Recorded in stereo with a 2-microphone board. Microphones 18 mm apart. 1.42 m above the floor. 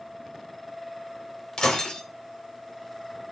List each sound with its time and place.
1.6 s breaking glass: 50° left (ahead or behind), 4 m